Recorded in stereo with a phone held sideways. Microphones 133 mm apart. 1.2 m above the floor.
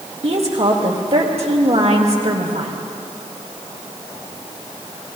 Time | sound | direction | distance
0.2 | a woman speaking | 55° right (ahead or behind) | 1.9 m